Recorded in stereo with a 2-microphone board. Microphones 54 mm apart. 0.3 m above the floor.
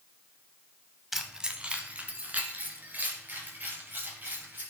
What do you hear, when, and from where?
1.1 s keys jangling: 5° right (ahead or behind), 1.0 m; by 4.6 s 40° right (ahead or behind), 5.5 m